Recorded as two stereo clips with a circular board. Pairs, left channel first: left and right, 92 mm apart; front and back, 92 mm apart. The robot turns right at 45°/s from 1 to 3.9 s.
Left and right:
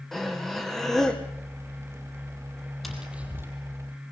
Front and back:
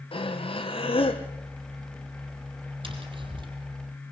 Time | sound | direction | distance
0.1 | breathing | 5° left | 2.5 m
2.8 | tapping | straight behind | 4.5 m